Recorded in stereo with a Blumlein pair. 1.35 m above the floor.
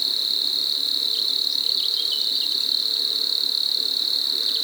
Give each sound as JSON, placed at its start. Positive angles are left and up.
{"t": 0.0, "sound": "an insect", "azimuth_deg": 0, "distance_m": 1.3}